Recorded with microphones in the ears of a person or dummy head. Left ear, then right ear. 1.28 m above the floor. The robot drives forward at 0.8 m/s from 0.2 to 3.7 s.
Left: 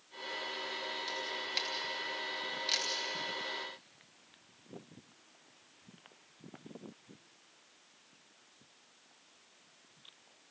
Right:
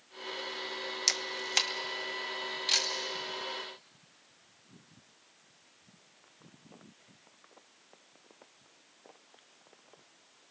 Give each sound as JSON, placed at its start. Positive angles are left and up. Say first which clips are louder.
{"t": 1.1, "sound": "a camera shutter", "louder": "right 6 dB", "side_deg": -60, "distance_m": 0.5}